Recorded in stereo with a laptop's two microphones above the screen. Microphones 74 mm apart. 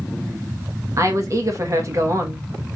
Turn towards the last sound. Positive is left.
turn(degrees=-45)  # may be behind; listen again after turning